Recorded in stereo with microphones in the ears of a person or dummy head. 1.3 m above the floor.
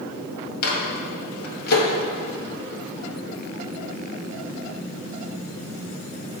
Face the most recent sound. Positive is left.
turn(degrees=55)  # may be behind; listen again after turning